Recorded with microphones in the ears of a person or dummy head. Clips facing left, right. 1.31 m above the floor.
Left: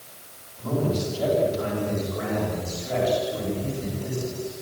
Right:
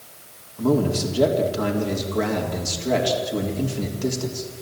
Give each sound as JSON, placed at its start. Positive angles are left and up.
{"t": 0.6, "sound": "a man speaking", "side_deg": -80, "distance_m": 4.0}